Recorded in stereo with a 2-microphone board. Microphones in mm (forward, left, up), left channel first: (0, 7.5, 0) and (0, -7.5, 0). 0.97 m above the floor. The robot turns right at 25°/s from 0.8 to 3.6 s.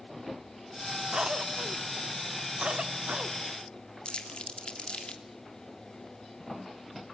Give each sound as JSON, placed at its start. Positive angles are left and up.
{"t": 1.1, "sound": "a cough", "side_deg": -50, "distance_m": 2.0}
{"t": 4.0, "sound": "crumpling", "side_deg": 70, "distance_m": 3.0}